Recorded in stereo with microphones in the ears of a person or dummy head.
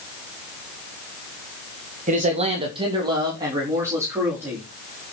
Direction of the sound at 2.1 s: 40° right (ahead or behind).